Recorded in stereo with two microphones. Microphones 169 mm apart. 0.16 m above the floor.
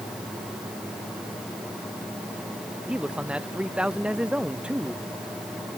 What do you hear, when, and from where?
2.9 s a man speaking: 5° right (ahead or behind)